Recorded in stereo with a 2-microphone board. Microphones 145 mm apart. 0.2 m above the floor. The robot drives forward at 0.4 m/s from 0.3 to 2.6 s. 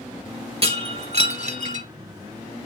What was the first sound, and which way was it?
Breaking glass, 45° right (ahead or behind).